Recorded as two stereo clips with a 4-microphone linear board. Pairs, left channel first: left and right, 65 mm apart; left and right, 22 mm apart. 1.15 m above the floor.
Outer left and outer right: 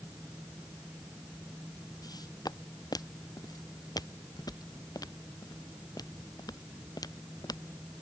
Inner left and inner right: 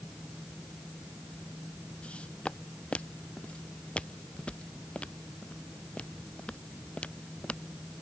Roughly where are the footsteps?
Left.